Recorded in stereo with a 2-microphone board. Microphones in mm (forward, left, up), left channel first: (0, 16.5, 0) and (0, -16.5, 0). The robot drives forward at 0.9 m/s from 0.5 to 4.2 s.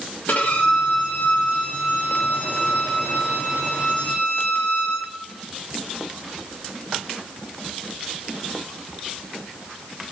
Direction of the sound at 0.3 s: 60° left (ahead or behind).